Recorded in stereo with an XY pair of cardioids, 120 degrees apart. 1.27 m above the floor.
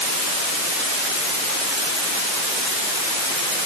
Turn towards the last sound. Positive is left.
No sound to turn to.